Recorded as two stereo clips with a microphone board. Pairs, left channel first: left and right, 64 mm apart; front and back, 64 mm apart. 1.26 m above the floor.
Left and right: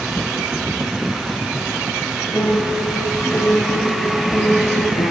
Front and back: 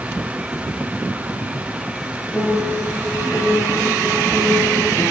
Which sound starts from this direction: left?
A piano, at 2.3 s.